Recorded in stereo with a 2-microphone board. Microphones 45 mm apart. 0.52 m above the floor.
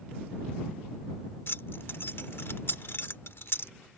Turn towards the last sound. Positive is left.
turn(degrees=55)  # may be behind; listen again after turning